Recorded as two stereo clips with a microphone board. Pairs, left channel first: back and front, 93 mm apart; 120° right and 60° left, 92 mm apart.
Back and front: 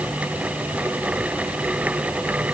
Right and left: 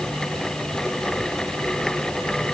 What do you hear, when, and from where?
Only background noise.